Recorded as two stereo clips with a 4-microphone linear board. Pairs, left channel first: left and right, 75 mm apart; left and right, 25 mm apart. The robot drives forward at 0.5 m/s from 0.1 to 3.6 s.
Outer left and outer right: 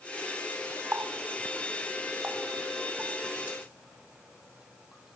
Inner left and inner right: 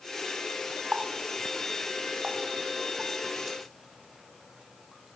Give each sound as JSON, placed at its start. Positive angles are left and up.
{"t": 0.9, "sound": "a running tap", "side_deg": -30, "distance_m": 0.5}